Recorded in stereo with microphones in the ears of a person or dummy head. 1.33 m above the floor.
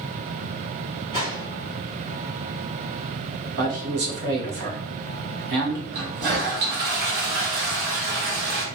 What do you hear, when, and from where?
1.1 s a gunshot: 30° right (ahead or behind), 1.7 m
3.6 s a man speaking: 65° right (ahead or behind), 1.1 m
5.9 s a toilet flushing: 55° right (ahead or behind), 0.9 m